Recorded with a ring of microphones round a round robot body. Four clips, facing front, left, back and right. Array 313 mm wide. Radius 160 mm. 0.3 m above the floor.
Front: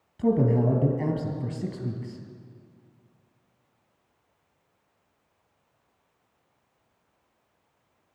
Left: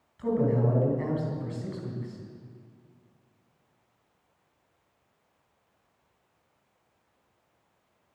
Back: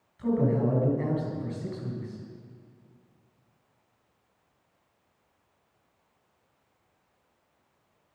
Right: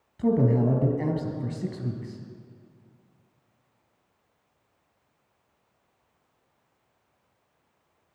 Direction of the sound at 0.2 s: 40° right.